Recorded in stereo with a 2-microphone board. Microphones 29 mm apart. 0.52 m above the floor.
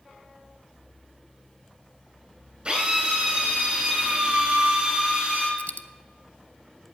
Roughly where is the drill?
Right.